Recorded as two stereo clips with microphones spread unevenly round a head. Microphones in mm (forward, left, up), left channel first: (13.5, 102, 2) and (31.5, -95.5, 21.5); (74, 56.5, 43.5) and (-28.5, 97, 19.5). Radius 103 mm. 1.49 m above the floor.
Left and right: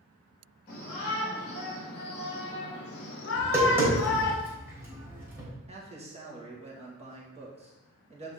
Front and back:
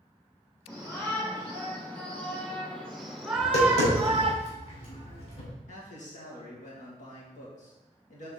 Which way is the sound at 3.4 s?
10° right.